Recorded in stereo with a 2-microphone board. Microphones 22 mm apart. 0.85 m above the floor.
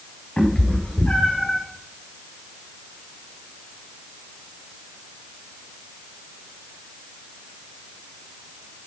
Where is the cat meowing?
55° left (ahead or behind), 5.5 m; by 1.6 s 65° left (ahead or behind), 5 m.